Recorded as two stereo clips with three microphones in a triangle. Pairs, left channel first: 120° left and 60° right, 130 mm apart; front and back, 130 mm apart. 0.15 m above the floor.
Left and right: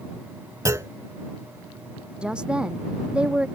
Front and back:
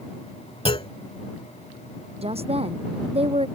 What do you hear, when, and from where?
0.7 s a clunk: 5° right
2.2 s a woman speaking: 145° right